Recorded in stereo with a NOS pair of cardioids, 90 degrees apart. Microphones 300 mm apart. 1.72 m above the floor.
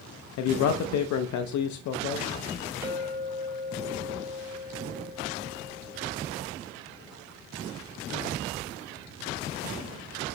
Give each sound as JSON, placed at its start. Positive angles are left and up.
{"t": 0.4, "sound": "a man speaking", "azimuth_deg": 70, "distance_m": 0.5}
{"t": 2.8, "sound": "a clink", "azimuth_deg": -50, "distance_m": 1.9}